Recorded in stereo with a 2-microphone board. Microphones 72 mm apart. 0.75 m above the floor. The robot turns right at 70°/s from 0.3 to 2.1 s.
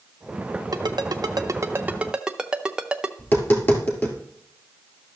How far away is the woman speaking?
I don't hear a woman speaking.